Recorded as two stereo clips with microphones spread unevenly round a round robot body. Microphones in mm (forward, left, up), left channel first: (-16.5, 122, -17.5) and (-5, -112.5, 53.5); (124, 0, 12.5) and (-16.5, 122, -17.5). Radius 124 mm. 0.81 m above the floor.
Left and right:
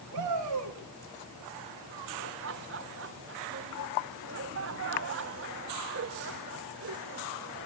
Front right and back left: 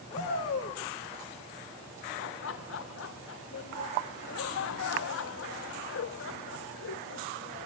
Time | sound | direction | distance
0.1 | a shout | 110° right | 6 m
2.2 | laughter | 40° right | 0.8 m